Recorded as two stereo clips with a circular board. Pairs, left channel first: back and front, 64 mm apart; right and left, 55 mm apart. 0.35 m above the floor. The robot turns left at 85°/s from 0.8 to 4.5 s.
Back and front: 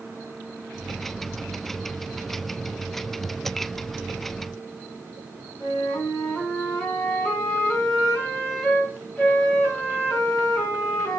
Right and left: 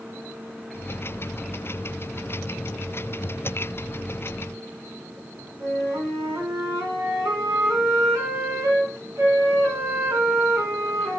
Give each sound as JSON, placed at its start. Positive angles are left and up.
{"t": 5.6, "sound": "a flute", "azimuth_deg": 110, "distance_m": 4.5}